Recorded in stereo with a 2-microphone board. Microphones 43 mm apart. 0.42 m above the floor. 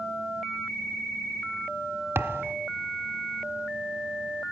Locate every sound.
2.1 s a thud: 80° right, 1.2 m